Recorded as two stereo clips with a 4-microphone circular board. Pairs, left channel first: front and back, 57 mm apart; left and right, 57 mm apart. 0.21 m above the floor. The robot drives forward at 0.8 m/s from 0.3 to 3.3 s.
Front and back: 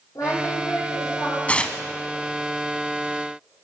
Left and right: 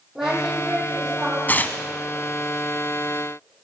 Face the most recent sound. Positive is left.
turn(degrees=150)